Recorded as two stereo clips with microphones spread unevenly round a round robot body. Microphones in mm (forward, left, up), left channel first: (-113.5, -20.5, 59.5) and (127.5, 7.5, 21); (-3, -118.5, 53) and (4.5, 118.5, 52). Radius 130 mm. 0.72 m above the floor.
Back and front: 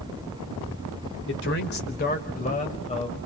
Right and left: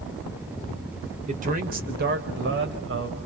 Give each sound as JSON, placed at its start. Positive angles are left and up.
{"t": 1.3, "sound": "a man speaking", "azimuth_deg": 145, "distance_m": 3.0}